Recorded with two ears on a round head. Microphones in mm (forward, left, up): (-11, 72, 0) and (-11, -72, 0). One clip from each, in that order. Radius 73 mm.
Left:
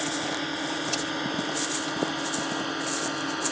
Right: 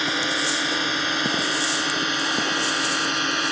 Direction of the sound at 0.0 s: 50° right (ahead or behind).